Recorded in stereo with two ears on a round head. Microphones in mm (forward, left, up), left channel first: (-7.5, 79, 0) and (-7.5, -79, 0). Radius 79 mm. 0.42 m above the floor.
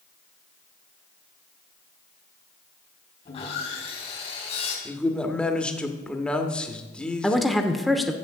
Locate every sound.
3.2 s sawing: 35° left (ahead or behind), 4 m
4.8 s a man speaking: 5° left (ahead or behind), 1.1 m
7.2 s a woman speaking: centre (ahead or behind), 1.0 m